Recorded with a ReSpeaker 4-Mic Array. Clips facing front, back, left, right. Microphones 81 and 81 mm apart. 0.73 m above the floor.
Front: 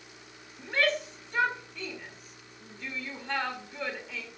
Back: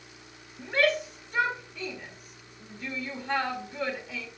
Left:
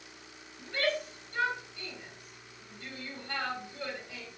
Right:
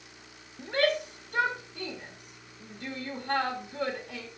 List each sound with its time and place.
0.6 s a shout: 90° right, 1.8 m